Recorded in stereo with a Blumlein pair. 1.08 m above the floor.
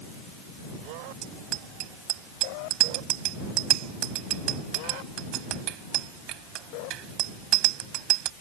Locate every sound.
1.2 s a bicycle bell: 40° right